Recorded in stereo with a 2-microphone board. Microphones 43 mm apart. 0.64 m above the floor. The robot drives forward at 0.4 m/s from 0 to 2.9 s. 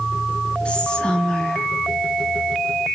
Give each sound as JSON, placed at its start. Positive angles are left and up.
{"t": 0.7, "sound": "whispering", "side_deg": 25, "distance_m": 0.8}